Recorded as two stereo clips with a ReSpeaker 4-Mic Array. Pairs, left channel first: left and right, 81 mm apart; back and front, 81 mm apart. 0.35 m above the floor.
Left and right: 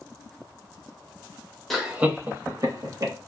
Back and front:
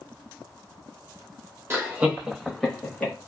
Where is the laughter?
5° left, 0.9 m; by 3.1 s 105° right, 1.5 m.